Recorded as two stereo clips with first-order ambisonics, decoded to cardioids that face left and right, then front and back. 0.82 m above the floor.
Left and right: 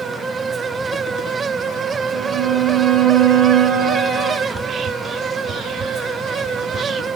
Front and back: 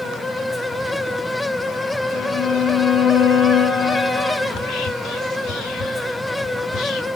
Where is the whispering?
25° right, 2 m.